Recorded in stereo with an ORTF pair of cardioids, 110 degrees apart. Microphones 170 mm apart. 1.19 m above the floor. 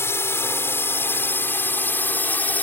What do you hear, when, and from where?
0.0 s a drone: 15° left; by 2.6 s 10° left